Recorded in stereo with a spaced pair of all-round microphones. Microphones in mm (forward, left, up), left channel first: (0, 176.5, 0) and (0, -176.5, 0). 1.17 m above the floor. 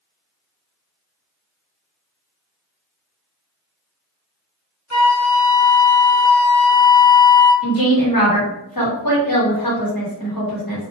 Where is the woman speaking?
70° left (ahead or behind), 1.2 m.